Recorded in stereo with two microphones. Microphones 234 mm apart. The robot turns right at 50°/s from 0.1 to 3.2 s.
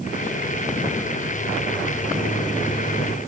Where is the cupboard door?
I don't hear a cupboard door.